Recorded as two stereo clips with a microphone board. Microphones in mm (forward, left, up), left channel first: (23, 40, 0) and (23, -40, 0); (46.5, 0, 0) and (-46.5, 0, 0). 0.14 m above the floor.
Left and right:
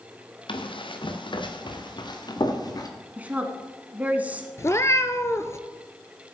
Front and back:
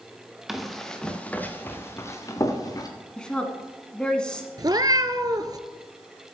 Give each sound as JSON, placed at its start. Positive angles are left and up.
{"t": 0.5, "sound": "running footsteps", "azimuth_deg": 90, "distance_m": 1.8}
{"t": 3.2, "sound": "a woman speaking", "azimuth_deg": -65, "distance_m": 1.4}
{"t": 4.6, "sound": "a cat meowing", "azimuth_deg": 140, "distance_m": 0.6}